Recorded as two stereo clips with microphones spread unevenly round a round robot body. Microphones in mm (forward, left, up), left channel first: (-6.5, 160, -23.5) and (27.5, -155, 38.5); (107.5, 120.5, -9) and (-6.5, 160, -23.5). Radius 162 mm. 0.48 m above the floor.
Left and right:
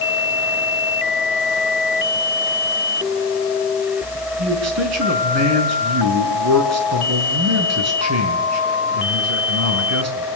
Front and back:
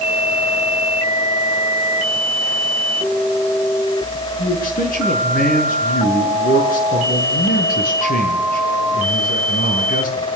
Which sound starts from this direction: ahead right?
A man speaking, at 4.4 s.